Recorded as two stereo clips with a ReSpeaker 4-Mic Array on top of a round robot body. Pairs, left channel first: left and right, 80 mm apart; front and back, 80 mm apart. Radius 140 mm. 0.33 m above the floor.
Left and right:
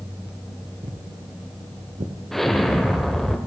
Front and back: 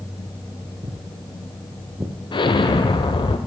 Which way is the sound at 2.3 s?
5° left.